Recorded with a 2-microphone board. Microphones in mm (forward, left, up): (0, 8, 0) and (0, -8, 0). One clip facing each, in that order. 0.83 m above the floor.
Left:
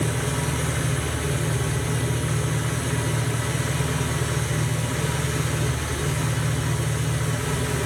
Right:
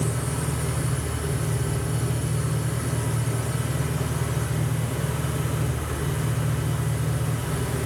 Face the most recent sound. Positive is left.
turn(degrees=55)  # may be behind; listen again after turning